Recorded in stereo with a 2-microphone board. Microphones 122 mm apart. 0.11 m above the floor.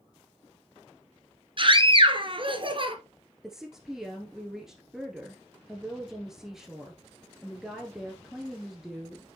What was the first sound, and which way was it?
A scream, 45° right (ahead or behind).